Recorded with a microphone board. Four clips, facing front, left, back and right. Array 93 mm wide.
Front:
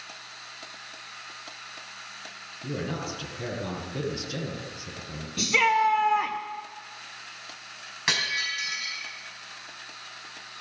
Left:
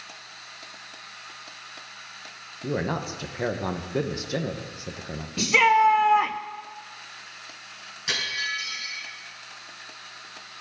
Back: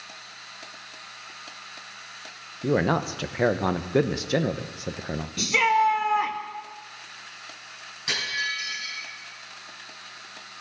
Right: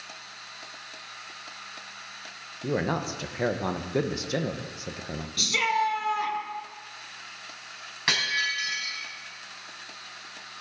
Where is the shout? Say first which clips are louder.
Left 8 dB, back 1 dB; 90° left, 0.5 m.